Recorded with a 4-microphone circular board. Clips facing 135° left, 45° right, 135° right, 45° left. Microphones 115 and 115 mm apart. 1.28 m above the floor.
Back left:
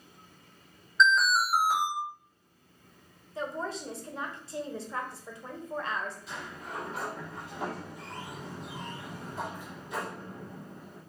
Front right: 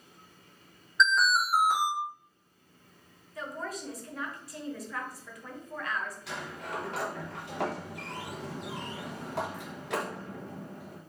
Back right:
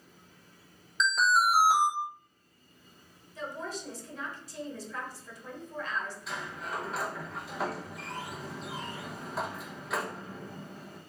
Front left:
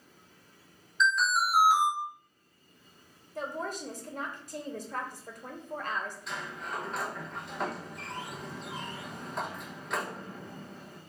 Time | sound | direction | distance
1.0 | an alarm | 135° right | 2 m
3.4 | a woman speaking | 75° left | 0.9 m
6.3 | a sliding door | 50° right | 0.7 m